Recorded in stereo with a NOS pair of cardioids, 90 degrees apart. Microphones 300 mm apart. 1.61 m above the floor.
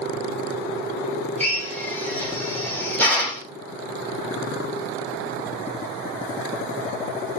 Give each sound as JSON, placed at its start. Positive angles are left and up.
{"t": 1.4, "sound": "a drill", "azimuth_deg": 5, "distance_m": 2.0}